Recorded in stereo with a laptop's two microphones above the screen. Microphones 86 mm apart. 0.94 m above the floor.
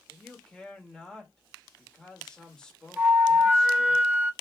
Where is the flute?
20° right (ahead or behind), 0.6 m.